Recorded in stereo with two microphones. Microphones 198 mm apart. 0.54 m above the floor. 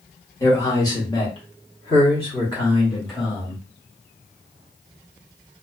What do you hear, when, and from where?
0.4 s a man speaking: 15° left (ahead or behind), 1.3 m; by 3.6 s 20° left (ahead or behind), 1.4 m